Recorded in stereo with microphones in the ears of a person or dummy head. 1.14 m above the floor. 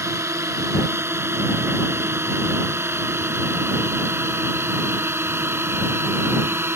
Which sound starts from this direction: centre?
A drone, at 0.0 s.